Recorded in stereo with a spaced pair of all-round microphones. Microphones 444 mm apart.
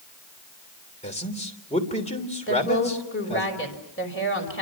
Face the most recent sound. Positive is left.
turn(degrees=25)  # may be behind; listen again after turning